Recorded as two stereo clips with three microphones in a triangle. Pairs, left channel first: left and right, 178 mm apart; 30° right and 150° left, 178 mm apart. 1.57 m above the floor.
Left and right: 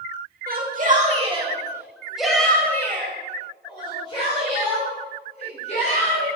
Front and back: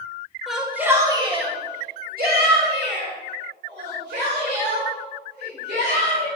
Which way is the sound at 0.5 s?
120° right.